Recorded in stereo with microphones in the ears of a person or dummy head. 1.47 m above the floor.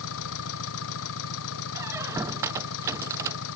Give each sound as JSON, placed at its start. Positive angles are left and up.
{"t": 0.0, "sound": "an engine running", "side_deg": 75}
{"t": 1.8, "sound": "a squeak", "side_deg": -10}